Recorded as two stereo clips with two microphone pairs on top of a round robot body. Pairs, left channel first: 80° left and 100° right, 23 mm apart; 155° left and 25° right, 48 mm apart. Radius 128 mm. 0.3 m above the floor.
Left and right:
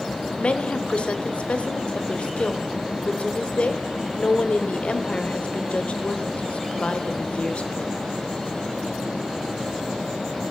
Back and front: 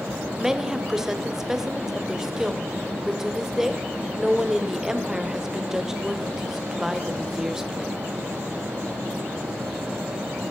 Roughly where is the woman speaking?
Ahead left.